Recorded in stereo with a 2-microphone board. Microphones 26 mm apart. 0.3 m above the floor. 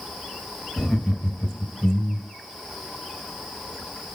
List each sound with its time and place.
0.8 s laughter: 5° left (ahead or behind), 1.1 m; by 2.3 s 10° left (ahead or behind), 1.1 m